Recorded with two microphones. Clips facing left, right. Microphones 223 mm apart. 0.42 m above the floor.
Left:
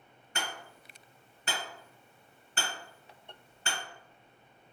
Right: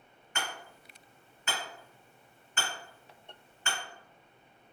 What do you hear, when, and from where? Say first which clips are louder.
0.3 s hammering: even; 40° left (ahead or behind), 1.8 m